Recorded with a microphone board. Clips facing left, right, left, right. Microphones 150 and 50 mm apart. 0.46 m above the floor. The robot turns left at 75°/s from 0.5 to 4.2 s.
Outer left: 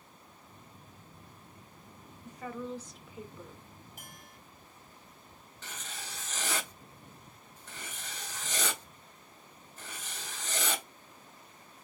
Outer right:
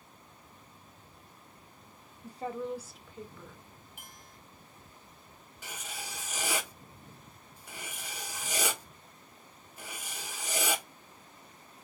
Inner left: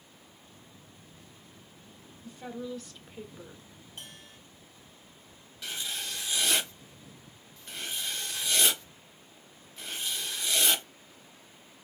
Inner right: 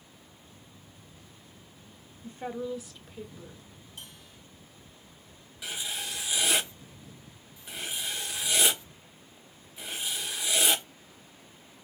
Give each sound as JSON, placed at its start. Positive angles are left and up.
{"t": 2.2, "sound": "a woman speaking", "azimuth_deg": -125, "distance_m": 1.1}
{"t": 4.0, "sound": "a bell", "side_deg": 40, "distance_m": 2.5}
{"t": 5.6, "sound": "writing", "side_deg": -10, "distance_m": 0.9}